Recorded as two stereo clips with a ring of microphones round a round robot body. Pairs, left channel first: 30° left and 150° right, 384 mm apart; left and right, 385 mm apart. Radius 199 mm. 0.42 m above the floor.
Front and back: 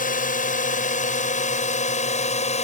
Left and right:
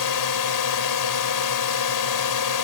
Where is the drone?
95° left; by 2.6 s 100° left.